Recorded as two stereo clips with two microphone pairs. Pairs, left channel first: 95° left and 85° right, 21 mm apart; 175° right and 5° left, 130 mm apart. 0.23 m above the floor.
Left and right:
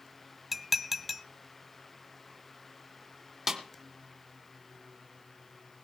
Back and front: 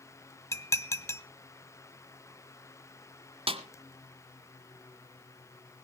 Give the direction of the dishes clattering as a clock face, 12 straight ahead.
5 o'clock.